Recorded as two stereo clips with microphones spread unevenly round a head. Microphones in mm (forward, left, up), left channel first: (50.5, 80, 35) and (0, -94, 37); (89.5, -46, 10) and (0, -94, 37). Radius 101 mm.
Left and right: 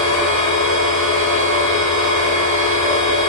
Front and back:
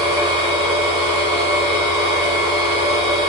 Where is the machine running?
120° right, 1.9 m.